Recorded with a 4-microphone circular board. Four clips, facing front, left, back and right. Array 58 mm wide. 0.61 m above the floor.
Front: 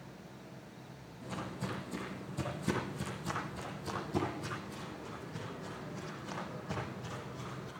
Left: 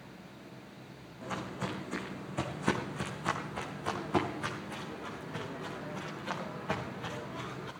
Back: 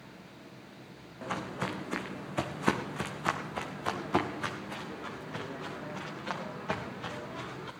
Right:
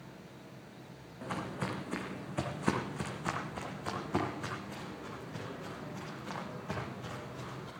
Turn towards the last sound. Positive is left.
turn(degrees=155)